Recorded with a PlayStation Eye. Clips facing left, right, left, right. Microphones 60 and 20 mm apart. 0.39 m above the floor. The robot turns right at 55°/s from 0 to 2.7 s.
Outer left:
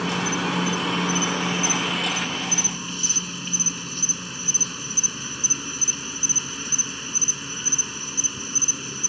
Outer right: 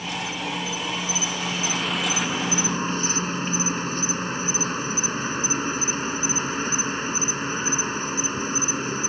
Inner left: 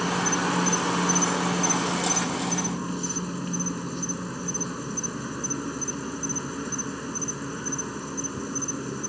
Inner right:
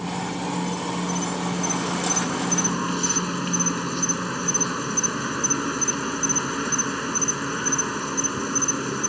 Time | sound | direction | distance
0.0 | an insect | 70° left | ?